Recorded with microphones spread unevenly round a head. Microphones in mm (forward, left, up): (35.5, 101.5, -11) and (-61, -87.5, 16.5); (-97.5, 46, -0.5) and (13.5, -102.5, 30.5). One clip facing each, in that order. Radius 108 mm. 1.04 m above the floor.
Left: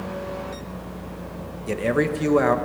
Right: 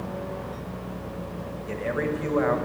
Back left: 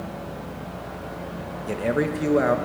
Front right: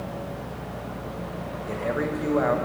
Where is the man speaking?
70° left, 1.0 m.